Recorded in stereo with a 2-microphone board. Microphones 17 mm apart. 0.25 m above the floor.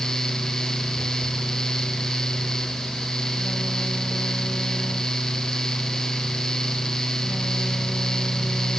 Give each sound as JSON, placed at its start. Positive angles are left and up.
{"t": 0.9, "sound": "a phone buzzing", "side_deg": -75, "distance_m": 7.5}